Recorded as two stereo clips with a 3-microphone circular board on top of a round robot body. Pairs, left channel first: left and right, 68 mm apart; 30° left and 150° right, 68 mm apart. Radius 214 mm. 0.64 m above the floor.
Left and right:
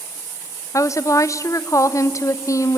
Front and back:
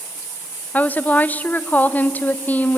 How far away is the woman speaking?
About 0.9 m.